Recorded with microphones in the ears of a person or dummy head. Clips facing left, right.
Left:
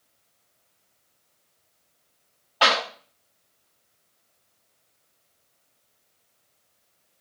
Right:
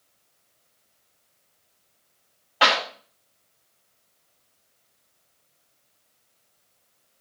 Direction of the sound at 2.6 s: 35° right (ahead or behind).